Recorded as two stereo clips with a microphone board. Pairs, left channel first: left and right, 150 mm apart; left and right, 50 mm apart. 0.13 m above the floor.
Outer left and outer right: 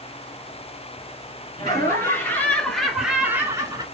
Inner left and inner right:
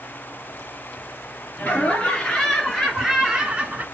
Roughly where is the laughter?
Left.